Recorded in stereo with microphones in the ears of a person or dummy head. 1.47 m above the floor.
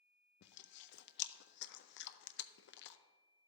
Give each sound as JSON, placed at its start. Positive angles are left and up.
{"t": 0.4, "sound": "chewing", "side_deg": 55, "distance_m": 0.5}